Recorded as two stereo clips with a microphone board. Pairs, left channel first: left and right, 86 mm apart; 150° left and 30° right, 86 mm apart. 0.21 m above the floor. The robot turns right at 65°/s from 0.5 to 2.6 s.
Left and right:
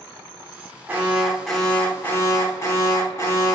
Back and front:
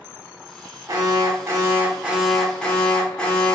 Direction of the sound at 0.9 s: 40° right.